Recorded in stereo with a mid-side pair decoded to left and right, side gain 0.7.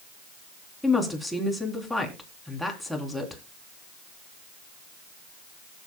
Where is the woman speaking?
Straight ahead, 3.5 m.